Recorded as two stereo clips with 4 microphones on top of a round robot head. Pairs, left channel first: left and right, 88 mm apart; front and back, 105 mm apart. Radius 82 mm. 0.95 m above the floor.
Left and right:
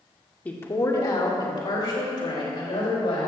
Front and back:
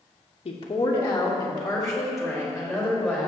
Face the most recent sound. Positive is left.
turn(degrees=95)